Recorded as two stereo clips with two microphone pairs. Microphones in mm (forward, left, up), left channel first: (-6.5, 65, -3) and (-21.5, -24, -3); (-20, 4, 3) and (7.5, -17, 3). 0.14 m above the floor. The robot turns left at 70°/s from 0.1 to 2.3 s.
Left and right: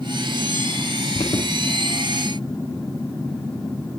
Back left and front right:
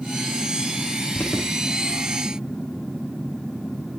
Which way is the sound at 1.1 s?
105° left.